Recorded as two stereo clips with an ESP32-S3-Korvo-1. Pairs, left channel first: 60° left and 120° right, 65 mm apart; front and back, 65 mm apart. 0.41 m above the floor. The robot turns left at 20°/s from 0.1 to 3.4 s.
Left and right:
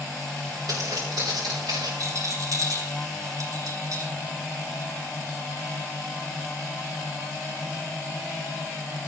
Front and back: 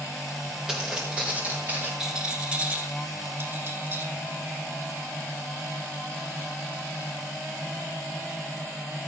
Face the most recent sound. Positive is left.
turn(degrees=-130)